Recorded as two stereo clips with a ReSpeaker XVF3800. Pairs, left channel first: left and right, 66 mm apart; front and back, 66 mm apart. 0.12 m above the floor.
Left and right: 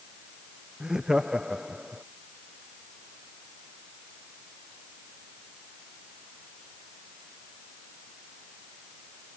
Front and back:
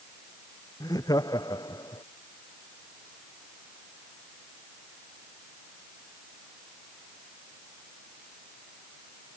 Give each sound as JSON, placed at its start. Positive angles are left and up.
{"t": 0.8, "sound": "laughter", "azimuth_deg": -10}